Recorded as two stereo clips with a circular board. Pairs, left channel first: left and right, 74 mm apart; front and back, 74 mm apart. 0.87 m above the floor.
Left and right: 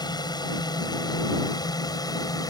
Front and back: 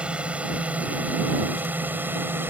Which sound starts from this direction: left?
A drone, at 0.0 s.